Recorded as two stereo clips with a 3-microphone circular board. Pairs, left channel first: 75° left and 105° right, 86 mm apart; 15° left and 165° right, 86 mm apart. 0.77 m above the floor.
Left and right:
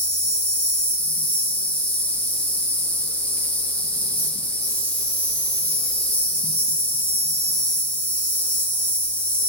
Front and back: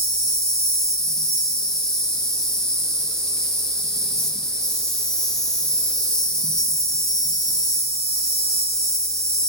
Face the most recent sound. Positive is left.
turn(degrees=85)